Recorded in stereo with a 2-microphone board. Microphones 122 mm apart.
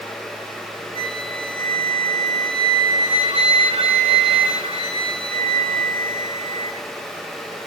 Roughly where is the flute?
Right.